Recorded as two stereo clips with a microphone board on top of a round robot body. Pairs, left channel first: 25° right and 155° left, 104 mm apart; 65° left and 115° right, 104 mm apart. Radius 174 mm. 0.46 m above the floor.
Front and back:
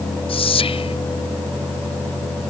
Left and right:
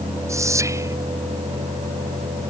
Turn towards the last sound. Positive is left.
turn(degrees=-50)